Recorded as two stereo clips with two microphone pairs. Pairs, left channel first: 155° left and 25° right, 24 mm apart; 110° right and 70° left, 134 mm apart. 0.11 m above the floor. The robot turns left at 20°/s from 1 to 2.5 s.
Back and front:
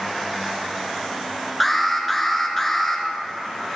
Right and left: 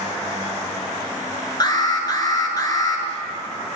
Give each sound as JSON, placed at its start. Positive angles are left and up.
{"t": 1.6, "sound": "an alarm", "azimuth_deg": -115, "distance_m": 1.1}